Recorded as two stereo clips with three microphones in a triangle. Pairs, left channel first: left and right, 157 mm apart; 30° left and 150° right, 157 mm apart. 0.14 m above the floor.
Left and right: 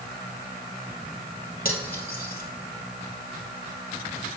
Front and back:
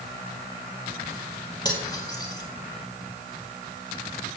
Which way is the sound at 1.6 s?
95° left.